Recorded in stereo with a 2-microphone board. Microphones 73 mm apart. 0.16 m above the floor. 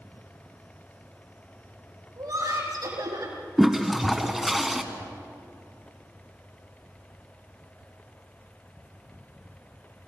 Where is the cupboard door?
I don't hear a cupboard door.